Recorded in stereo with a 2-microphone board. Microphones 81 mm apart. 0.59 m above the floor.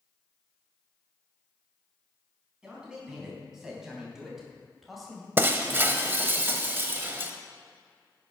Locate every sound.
2.6 s a man speaking: 10° right (ahead or behind), 4.5 m; by 5.3 s centre (ahead or behind), 2.5 m
5.4 s breaking glass: 25° right (ahead or behind), 0.9 m